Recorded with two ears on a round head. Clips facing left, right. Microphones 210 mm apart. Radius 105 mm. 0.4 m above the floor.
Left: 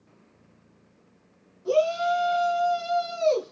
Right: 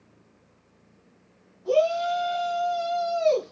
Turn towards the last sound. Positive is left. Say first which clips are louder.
# right 1 dB
turn(degrees=25)  # may be behind; listen again after turning